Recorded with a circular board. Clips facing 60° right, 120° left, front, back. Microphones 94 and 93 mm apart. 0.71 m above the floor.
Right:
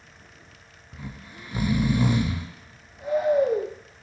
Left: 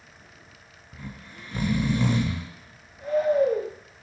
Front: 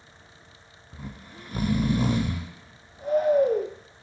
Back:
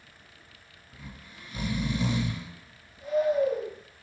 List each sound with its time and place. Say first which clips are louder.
0.9 s snoring: right 1 dB, front 6 dB; 15° left, 0.6 m